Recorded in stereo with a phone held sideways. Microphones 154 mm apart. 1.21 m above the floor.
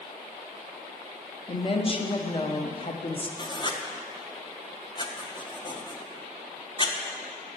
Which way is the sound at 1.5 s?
35° left (ahead or behind).